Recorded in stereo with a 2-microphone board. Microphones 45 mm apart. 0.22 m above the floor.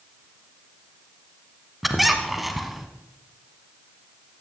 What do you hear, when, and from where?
1.8 s a squeak: centre (ahead or behind), 1.0 m